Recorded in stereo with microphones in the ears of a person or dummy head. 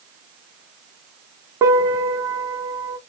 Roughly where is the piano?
Centre.